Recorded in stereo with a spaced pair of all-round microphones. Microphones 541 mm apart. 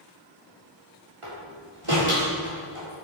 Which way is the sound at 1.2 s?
65° right (ahead or behind).